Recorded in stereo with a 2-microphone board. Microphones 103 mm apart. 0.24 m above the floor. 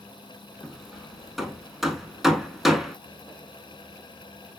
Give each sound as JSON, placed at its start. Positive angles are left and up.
{"t": 0.6, "sound": "hammering", "side_deg": 0, "distance_m": 0.7}